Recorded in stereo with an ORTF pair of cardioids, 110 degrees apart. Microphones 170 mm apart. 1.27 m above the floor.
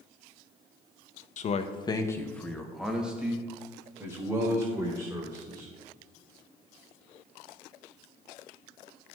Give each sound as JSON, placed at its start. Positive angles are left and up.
{"t": 1.4, "sound": "a man speaking", "azimuth_deg": 50, "distance_m": 0.8}